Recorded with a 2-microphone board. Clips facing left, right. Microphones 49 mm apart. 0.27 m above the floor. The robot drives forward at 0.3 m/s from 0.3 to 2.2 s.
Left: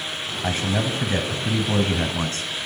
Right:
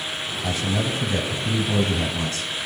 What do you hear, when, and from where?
0.4 s a man speaking: 40° left (ahead or behind), 1.3 m